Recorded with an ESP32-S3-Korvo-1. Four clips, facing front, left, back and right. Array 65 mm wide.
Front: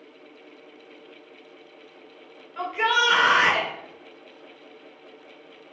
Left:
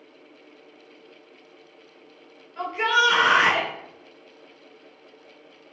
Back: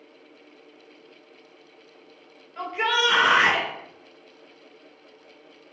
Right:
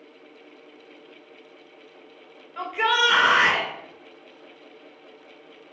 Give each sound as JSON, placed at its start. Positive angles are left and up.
{"t": 2.6, "sound": "a shout", "azimuth_deg": -65, "distance_m": 0.9}